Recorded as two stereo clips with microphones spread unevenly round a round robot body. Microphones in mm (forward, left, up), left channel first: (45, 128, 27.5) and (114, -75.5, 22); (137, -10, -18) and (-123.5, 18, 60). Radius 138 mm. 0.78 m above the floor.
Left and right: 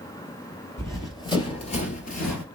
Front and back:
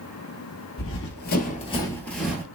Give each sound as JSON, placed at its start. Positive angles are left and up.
{"t": 0.8, "sound": "running footsteps", "azimuth_deg": 35, "distance_m": 1.0}